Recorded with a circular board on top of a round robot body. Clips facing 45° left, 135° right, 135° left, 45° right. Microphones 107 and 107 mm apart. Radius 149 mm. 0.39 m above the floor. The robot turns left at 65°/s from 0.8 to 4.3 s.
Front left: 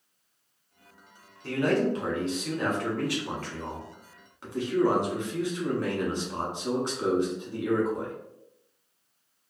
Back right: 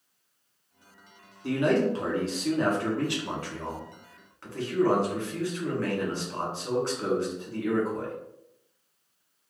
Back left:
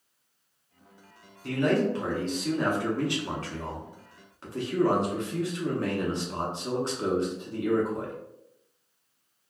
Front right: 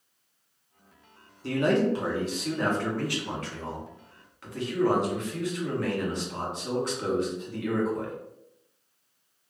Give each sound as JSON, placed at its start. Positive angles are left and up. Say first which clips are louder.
{"t": 1.4, "sound": "a man speaking", "louder": "back right 1 dB, front right 1 dB", "azimuth_deg": -70, "distance_m": 1.3}